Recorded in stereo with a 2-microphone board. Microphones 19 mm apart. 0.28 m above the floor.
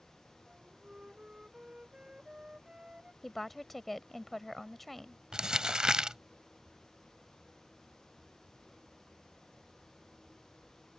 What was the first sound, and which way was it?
A flute, 60° right (ahead or behind).